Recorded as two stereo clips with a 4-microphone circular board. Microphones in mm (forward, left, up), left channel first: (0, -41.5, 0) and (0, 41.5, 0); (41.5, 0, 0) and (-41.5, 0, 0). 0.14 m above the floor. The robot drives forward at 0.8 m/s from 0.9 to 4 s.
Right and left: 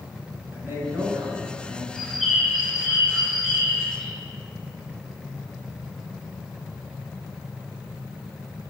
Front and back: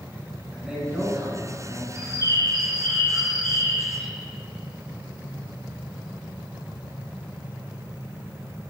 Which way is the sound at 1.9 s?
175° right.